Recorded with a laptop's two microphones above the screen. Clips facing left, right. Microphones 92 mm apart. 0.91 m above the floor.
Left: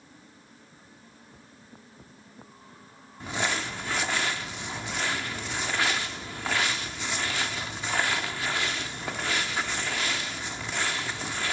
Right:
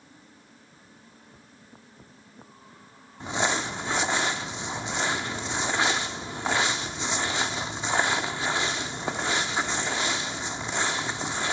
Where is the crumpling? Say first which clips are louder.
Right 3 dB; 20° right (ahead or behind), 0.8 m.